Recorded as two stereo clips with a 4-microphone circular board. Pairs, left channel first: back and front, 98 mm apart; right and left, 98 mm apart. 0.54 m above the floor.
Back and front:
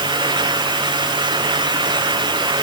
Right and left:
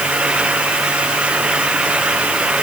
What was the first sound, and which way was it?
Only background noise.